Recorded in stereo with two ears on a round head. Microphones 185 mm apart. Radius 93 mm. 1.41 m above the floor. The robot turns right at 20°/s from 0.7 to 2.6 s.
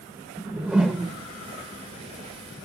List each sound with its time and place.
0.4 s a whoosh: 5° right (ahead or behind), 0.7 m; by 1.2 s centre (ahead or behind), 0.7 m